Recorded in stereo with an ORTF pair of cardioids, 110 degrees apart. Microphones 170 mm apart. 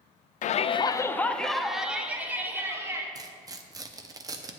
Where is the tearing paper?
20° right, 0.8 m.